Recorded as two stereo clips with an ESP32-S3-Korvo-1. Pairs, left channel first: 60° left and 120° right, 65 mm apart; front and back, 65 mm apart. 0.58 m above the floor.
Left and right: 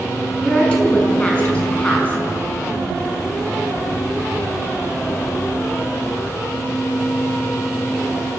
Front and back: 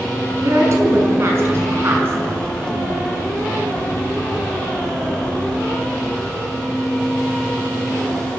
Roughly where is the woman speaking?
Behind left.